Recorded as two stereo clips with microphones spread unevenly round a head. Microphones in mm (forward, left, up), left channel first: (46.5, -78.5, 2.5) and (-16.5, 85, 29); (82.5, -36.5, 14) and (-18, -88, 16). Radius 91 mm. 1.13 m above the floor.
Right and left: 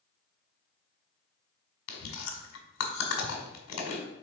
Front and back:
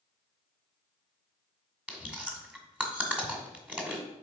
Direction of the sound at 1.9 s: 75° right.